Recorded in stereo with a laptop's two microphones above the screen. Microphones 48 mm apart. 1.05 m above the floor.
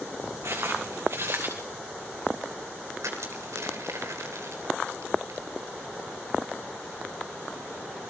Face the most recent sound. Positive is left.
turn(degrees=-80)